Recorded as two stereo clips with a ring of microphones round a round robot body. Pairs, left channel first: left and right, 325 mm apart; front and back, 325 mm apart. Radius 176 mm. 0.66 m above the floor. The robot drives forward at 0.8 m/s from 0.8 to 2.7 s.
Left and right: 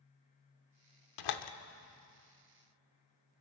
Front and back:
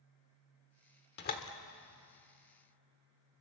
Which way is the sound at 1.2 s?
60° left.